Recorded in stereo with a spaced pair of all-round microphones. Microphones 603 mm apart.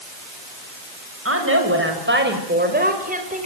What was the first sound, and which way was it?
A woman speaking, 20° right (ahead or behind).